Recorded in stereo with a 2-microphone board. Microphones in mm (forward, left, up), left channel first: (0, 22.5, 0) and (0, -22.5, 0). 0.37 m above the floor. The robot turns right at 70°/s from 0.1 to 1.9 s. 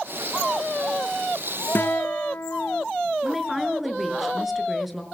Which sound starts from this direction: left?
A guitar, at 1.8 s.